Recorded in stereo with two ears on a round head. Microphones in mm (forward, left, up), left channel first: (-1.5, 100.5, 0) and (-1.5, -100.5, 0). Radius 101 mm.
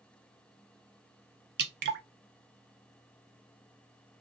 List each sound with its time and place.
1.6 s dripping: 45° right (ahead or behind), 0.7 m